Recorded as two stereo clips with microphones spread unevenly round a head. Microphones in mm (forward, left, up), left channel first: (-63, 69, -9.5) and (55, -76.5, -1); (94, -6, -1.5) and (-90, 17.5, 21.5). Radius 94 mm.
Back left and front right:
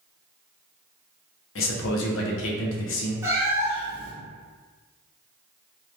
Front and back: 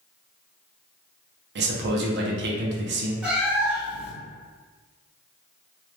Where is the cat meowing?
115° right, 0.7 m.